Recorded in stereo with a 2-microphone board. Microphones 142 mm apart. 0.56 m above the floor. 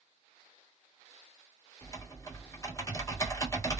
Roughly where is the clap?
I don't hear a clap.